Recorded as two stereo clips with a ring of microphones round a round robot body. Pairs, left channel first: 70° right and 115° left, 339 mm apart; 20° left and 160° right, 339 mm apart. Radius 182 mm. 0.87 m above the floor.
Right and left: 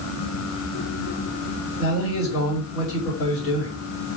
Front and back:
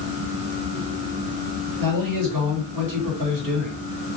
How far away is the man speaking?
About 2 m.